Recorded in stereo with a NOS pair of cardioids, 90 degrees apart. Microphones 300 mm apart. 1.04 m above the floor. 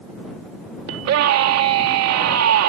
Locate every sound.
0.9 s a scream: 70° right